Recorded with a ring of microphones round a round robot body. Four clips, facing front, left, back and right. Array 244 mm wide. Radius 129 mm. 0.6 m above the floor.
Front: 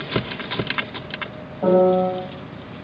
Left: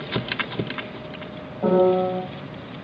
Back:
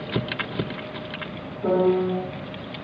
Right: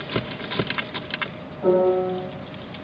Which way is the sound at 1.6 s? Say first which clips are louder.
Even, front 5 dB; 20° left.